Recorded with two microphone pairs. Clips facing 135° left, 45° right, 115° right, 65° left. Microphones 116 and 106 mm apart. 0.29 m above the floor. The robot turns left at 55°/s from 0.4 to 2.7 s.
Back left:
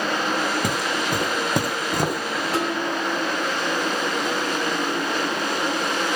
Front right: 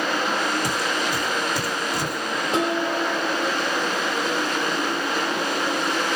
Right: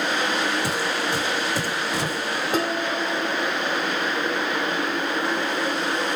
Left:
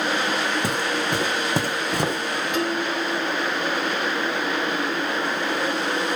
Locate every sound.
0.6 s footsteps: 105° left, 1.3 m; by 2.4 s 90° left, 1.4 m
2.5 s dishes clattering: 100° right, 0.8 m; by 3.6 s 110° right, 0.8 m